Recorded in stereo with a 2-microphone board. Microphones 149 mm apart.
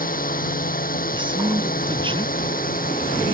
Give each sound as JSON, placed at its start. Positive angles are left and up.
{"t": 0.0, "sound": "a drone", "side_deg": 70}
{"t": 1.1, "sound": "a man speaking", "side_deg": -35}